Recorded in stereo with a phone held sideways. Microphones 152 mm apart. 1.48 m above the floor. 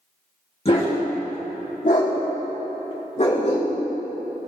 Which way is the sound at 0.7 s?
40° left (ahead or behind).